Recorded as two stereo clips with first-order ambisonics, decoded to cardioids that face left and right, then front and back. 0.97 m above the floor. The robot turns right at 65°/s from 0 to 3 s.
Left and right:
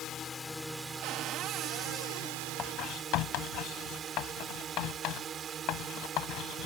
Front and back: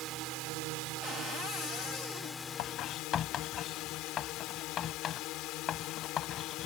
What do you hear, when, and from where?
0.0 s a drone: 135° left; by 6.7 s 30° right
1.0 s a cupboard door: 70° right; by 2.4 s 25° left
2.6 s writing: 30° left; by 6.7 s 55° left